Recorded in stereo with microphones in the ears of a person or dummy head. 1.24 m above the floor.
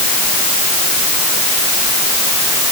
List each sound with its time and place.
Only background noise.